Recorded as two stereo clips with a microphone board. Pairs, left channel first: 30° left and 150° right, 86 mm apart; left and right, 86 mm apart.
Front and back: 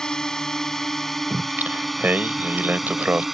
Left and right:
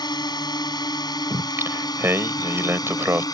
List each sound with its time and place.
0.0 s a drone: 110° left; by 3.4 s 125° left
1.3 s singing: 105° right